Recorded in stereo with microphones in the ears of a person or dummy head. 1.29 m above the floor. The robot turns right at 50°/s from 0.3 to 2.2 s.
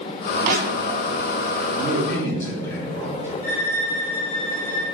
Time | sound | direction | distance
0.4 | crushing | 45° right (ahead or behind) | 0.8 m
1.8 | a man speaking | 5° right (ahead or behind) | 1.6 m
3.4 | a violin | 10° left (ahead or behind) | 2.0 m